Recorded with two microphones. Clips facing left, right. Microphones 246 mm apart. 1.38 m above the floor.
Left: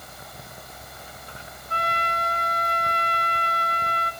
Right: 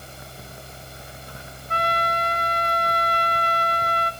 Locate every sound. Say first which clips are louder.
1.7 s a trumpet: right 4 dB; 80° right, 2 m